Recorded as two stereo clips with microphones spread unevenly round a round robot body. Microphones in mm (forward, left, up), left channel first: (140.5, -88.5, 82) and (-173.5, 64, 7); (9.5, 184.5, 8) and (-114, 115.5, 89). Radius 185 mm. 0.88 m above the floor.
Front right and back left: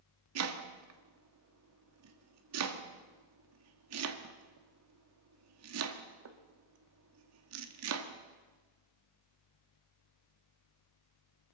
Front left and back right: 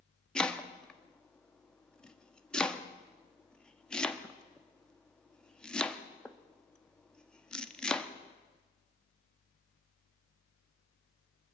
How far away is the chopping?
About 1.1 m.